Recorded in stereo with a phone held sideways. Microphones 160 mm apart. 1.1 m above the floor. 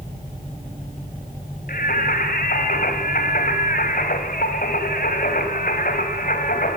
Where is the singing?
60° left (ahead or behind), 3 m.